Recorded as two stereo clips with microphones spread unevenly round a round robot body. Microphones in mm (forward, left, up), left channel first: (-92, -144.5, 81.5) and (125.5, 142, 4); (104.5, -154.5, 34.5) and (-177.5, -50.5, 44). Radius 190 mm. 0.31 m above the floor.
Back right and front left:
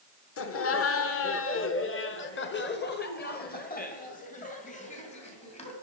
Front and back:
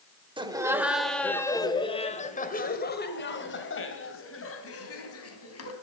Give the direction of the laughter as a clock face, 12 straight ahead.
5 o'clock.